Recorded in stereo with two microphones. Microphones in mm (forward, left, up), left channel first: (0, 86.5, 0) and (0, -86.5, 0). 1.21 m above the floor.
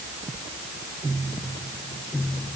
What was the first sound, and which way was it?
Only background noise.